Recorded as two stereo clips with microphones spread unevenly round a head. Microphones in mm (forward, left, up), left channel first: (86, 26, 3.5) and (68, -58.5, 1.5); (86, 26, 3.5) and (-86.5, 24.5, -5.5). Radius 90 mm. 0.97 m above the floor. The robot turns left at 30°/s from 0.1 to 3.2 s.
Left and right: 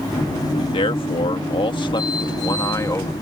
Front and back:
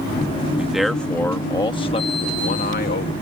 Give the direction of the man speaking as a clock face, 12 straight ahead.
9 o'clock.